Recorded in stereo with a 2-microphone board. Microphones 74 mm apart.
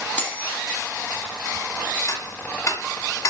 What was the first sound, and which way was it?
Cutlery clinking, 15° left (ahead or behind).